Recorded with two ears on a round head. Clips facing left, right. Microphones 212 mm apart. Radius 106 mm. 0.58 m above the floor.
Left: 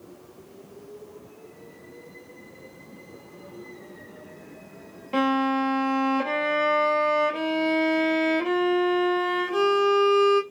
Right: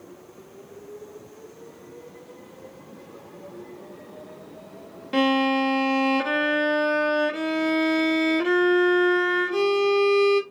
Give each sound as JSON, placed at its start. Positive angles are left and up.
{"t": 5.1, "sound": "a violin", "side_deg": -20, "distance_m": 1.0}